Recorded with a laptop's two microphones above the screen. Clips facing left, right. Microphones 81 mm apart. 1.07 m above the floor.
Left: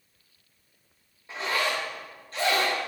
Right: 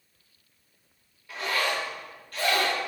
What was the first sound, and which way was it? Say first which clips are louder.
A zipper: even; 25° left (ahead or behind).